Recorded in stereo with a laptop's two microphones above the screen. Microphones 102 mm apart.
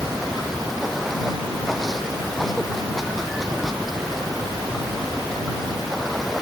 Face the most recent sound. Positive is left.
turn(degrees=0)  # may be behind; listen again after turning